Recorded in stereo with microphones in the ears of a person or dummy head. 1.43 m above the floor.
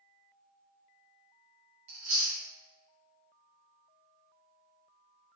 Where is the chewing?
40° right (ahead or behind), 0.9 m.